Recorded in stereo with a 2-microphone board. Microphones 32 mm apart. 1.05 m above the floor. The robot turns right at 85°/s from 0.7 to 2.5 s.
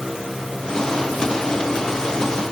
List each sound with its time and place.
Only background noise.